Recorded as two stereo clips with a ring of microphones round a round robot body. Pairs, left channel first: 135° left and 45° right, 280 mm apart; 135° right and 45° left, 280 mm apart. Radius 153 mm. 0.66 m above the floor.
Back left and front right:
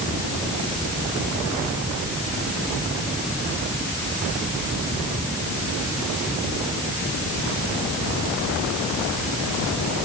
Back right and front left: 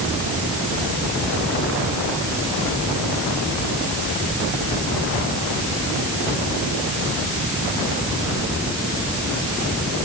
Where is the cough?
No cough in this recording.